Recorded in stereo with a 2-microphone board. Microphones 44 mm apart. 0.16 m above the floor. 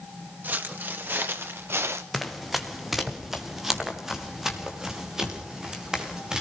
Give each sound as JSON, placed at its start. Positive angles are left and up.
{"t": 0.4, "sound": "footsteps", "side_deg": -45, "distance_m": 3.0}
{"t": 2.1, "sound": "running footsteps", "side_deg": 0, "distance_m": 3.0}